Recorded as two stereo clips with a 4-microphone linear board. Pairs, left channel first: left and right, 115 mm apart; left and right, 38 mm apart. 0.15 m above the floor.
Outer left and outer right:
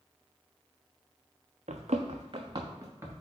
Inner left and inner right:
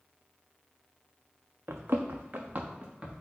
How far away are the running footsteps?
About 0.7 m.